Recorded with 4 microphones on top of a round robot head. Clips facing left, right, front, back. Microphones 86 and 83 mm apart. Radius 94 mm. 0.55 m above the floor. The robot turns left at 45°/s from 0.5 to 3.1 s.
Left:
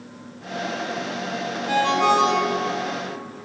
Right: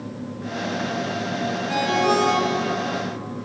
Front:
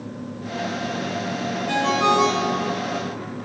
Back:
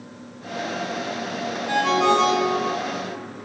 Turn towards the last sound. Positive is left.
turn(degrees=40)